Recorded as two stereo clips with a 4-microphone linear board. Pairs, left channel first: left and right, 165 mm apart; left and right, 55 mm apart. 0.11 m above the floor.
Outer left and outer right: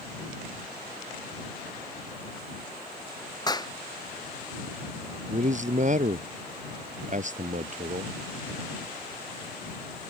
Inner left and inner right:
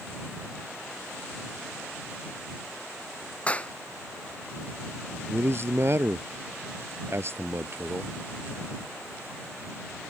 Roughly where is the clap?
Left.